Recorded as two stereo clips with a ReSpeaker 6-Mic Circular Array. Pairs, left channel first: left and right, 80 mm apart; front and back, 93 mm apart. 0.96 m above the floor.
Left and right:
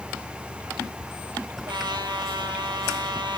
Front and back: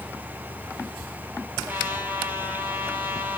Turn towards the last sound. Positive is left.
turn(degrees=-110)